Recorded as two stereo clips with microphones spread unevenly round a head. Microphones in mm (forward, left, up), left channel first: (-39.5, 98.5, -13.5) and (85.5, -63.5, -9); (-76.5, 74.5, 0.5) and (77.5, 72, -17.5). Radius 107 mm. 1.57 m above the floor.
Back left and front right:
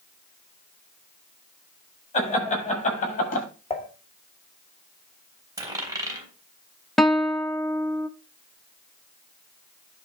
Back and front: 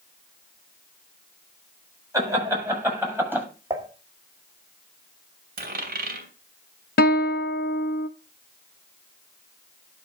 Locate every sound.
2.1 s laughter: 70° left, 8 m; by 3.5 s 75° left, 7.5 m
3.7 s dishes clattering: 65° left, 2 m
5.6 s a dropped coin: 20° left, 3 m
7.0 s a guitar: 145° right, 0.6 m